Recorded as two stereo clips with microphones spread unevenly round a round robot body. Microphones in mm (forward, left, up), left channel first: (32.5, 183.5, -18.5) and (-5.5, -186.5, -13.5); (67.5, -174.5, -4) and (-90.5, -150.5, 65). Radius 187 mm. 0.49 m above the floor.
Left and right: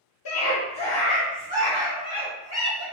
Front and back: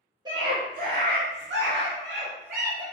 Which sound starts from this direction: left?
A scream, at 0.2 s.